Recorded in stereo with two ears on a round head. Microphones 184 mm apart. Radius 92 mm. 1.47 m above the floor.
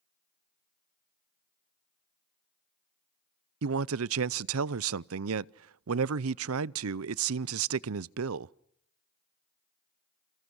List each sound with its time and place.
3.6 s a man speaking: 75° right (ahead or behind), 0.5 m